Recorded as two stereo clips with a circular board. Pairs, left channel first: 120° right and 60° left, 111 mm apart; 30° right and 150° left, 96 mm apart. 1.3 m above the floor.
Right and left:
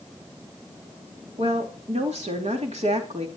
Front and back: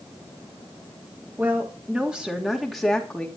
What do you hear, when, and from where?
1.4 s a woman speaking: 80° left, 3 m; by 3.3 s 50° left, 3 m